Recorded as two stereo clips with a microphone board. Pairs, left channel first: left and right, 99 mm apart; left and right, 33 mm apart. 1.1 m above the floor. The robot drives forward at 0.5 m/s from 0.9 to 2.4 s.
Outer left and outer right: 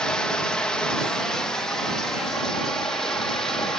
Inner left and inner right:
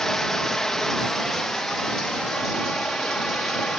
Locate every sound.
0.0 s running water: 10° left (ahead or behind), 1.2 m; by 3.8 s 5° left (ahead or behind), 1.9 m